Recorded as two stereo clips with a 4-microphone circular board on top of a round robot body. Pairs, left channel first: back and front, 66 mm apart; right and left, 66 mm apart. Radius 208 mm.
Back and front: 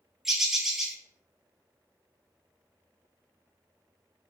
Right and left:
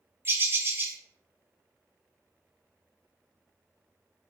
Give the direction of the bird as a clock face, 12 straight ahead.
9 o'clock.